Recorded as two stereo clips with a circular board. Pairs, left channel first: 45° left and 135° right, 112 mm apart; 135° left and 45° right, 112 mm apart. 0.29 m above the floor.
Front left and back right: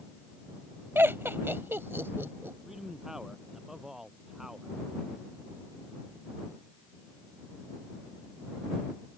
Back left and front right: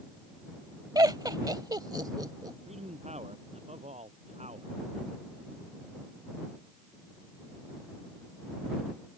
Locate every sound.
0.9 s laughter: 75° right
2.7 s a man speaking: 50° right